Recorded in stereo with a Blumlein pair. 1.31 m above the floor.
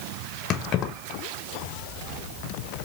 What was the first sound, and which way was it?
Keys jangling, 30° left.